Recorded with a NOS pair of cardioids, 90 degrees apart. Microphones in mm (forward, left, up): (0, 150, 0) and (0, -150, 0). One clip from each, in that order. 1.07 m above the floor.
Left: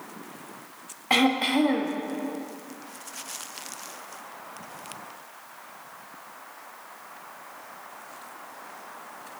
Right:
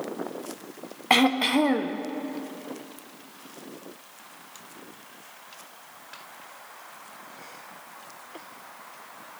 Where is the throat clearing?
30° right, 0.8 m.